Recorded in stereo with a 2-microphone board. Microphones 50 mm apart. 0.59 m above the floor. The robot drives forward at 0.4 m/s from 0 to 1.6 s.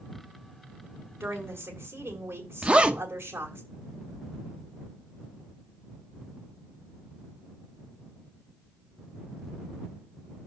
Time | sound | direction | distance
1.2 | a woman speaking | 55° right (ahead or behind) | 2.5 m
2.6 | a zipper | 20° right (ahead or behind) | 0.6 m